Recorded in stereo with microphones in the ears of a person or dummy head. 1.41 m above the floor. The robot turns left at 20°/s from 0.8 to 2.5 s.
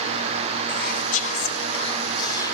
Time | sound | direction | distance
0.7 | whispering | 55° left | 1.5 m